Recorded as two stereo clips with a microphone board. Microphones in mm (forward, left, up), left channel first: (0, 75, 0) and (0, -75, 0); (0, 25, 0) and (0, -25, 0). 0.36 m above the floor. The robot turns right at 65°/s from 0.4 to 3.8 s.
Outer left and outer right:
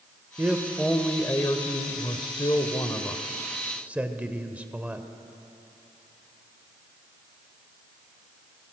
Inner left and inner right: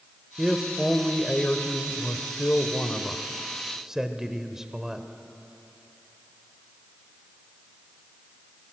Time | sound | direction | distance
0.4 | a man speaking | 25° right | 1.2 m